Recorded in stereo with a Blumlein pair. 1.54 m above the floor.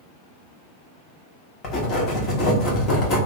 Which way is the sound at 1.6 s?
30° left.